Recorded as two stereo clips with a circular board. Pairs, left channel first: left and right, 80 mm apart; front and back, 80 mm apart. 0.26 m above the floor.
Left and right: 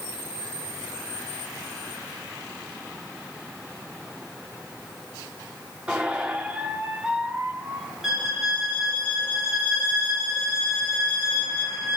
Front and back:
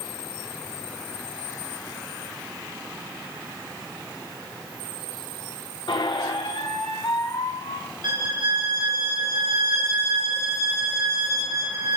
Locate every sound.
5.9 s a squeak: 15° right, 0.8 m
8.0 s a violin: 175° right, 4 m